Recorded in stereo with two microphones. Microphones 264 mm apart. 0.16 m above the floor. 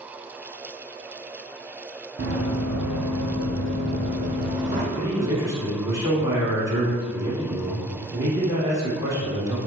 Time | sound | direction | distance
2.2 | running footsteps | 50° right (ahead or behind) | 0.9 m
5.0 | a man speaking | 10° right (ahead or behind) | 1.1 m